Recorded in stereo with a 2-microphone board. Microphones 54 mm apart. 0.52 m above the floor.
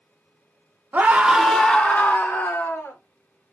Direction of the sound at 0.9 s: 35° right (ahead or behind).